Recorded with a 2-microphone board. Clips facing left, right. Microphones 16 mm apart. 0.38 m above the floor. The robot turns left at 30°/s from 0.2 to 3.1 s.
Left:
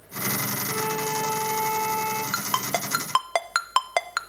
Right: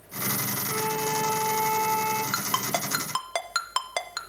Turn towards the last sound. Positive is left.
turn(degrees=40)  # may be behind; listen again after turning